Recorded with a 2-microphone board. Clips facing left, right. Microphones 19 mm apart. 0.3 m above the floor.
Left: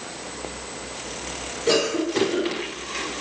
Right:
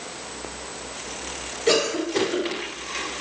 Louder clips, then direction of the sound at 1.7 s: Even; 30° right (ahead or behind).